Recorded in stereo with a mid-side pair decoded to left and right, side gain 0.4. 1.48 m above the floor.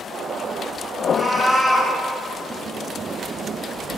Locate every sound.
1.0 s a cat meowing: 5° left, 4 m